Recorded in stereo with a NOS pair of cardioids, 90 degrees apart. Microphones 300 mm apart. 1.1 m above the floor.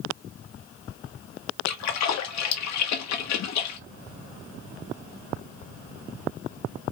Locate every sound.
1.7 s a splash: 65° left, 1.3 m